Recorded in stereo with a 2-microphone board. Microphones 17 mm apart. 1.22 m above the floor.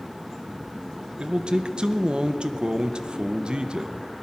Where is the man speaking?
65° right (ahead or behind), 0.6 m.